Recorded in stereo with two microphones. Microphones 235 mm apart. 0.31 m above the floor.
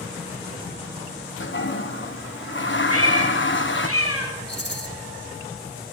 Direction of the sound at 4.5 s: 50° left (ahead or behind).